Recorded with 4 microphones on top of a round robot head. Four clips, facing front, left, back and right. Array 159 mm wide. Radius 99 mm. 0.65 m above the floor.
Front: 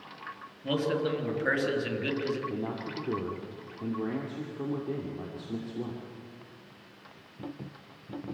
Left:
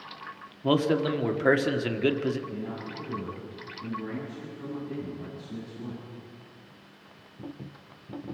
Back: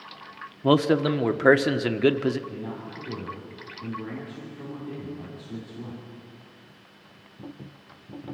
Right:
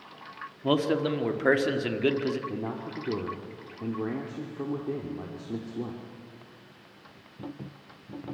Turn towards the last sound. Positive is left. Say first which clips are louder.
# right 2 dB, front 1 dB
turn(degrees=-60)